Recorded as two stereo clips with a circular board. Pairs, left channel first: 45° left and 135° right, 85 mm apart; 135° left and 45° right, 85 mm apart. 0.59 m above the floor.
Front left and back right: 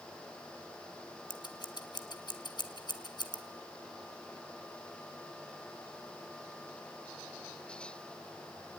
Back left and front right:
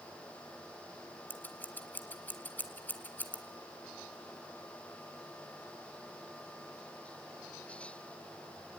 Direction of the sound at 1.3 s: 70° left.